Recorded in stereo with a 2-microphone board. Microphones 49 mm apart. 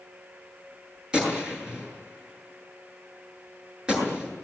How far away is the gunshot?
About 7.5 m.